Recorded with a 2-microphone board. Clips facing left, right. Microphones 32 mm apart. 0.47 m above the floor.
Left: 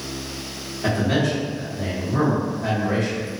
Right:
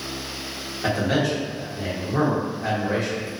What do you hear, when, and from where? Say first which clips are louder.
0.8 s a man speaking: left 1 dB; 15° right (ahead or behind), 1.3 m